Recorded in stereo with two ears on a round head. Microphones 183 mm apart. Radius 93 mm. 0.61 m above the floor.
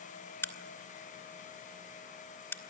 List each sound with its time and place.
0.4 s a crack: 10° left (ahead or behind), 1.7 m